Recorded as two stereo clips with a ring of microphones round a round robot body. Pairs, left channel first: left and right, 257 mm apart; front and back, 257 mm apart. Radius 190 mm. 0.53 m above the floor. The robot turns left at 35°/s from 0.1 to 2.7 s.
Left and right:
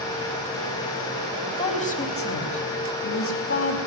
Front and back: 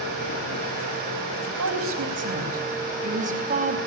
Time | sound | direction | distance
1.5 | a woman speaking | 165° left | 4.5 m